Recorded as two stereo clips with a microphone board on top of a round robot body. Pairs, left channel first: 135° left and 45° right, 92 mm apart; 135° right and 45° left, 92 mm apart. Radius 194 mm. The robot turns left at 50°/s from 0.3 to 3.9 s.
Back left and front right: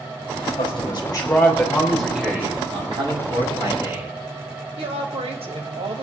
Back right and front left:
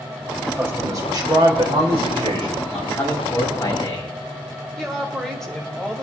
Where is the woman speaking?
50° right, 2.5 m.